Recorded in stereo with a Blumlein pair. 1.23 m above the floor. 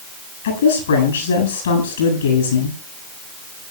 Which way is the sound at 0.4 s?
60° left.